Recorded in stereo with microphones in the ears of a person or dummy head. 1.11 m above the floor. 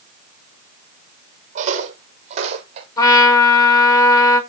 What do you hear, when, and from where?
1.6 s footsteps: 45° right (ahead or behind), 3 m; by 2.9 s 40° right (ahead or behind), 4 m
3.0 s a trumpet: 20° left (ahead or behind), 6.5 m